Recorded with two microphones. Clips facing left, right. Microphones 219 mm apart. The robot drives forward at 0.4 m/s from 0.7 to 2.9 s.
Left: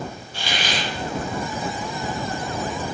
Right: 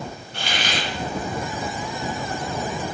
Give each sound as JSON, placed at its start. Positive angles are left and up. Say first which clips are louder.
{"t": 0.3, "sound": "a hiss", "louder": "even", "side_deg": -60, "distance_m": 1.1}